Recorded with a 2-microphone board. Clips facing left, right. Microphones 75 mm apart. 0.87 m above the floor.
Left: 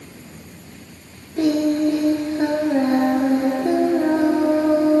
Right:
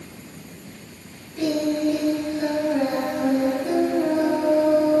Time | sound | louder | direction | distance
1.4 | singing | left 4 dB | 50° left (ahead or behind) | 2.5 m